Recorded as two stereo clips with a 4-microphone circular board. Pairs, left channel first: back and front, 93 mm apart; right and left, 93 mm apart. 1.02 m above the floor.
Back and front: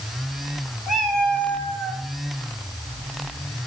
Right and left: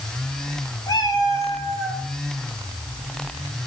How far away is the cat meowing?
About 1.6 m.